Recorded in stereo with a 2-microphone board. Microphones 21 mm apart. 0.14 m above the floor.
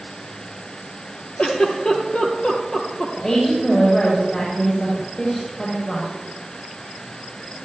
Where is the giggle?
50° left (ahead or behind), 3.5 m.